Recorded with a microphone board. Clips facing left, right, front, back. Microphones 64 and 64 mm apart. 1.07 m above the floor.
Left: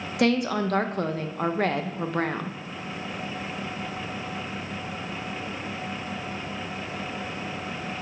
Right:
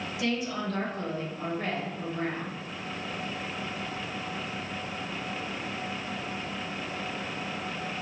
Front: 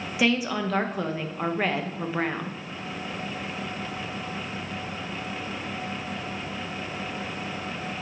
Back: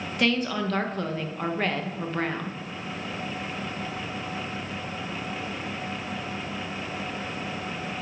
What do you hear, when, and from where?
0.2 s a woman speaking: 85° left, 0.8 m